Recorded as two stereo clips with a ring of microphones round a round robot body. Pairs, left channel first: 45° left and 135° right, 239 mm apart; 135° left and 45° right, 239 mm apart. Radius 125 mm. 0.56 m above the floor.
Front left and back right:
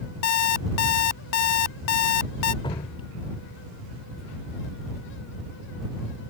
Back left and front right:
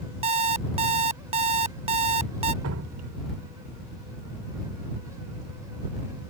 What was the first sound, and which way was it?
An alarm clock, 20° left.